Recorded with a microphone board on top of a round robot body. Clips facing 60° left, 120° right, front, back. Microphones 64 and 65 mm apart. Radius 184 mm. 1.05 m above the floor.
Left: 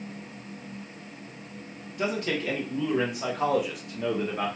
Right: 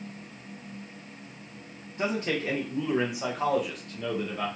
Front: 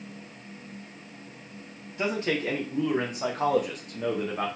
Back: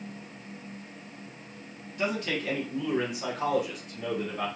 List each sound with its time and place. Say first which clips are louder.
2.0 s a man speaking: even, front 2 dB; 65° right, 2.0 m; by 4.5 s 20° left, 1.1 m